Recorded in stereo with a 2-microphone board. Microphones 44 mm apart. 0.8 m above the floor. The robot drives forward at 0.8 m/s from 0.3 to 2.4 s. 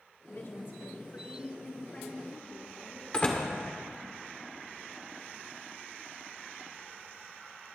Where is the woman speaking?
55° left (ahead or behind), 1.6 m; by 3.0 s 35° left (ahead or behind), 2.5 m.